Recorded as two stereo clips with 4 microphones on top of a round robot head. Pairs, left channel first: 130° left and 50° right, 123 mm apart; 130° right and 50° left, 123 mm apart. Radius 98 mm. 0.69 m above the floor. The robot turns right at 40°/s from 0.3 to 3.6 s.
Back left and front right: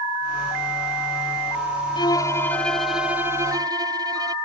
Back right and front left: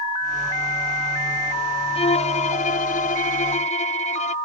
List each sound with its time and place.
1.9 s a violin: 175° right; by 4.3 s 105° right